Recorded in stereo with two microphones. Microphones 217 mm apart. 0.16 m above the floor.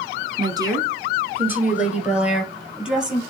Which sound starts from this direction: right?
A woman speaking, at 0.4 s.